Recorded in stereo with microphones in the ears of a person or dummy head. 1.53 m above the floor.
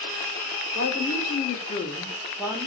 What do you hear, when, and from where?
0.7 s a woman speaking: 65° left (ahead or behind), 1.0 m; by 2.7 s 25° right (ahead or behind), 0.5 m